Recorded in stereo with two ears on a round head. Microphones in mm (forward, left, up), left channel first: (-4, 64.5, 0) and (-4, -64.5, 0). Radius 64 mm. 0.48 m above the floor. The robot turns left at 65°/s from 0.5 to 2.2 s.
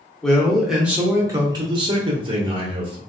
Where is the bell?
I don't hear a bell.